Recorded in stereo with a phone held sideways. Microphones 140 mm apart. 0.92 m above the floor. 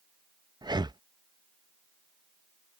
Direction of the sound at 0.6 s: 30° right (ahead or behind).